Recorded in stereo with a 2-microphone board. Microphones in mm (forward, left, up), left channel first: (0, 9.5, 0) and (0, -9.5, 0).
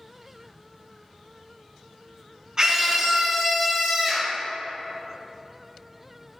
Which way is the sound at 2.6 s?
35° right (ahead or behind).